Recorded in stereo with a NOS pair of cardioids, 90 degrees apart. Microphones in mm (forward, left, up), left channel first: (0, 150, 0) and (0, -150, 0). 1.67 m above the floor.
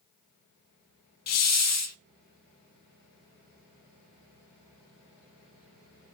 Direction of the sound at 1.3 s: 55° left.